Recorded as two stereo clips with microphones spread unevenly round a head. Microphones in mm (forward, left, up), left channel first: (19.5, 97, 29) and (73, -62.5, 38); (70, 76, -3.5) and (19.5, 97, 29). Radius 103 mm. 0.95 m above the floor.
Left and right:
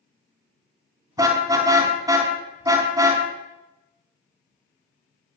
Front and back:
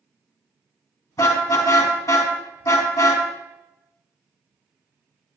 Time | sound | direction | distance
1.2 | a car horn | 5° right | 5 m